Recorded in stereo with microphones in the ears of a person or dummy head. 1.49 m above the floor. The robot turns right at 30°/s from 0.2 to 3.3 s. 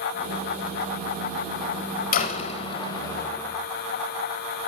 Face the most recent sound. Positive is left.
turn(degrees=165)